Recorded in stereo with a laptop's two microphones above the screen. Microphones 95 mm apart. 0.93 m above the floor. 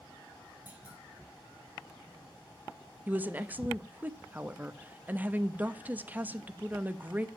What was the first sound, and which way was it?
A clunk, 20° right (ahead or behind).